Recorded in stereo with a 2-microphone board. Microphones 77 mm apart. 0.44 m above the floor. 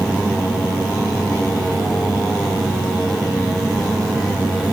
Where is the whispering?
No whispering in this recording.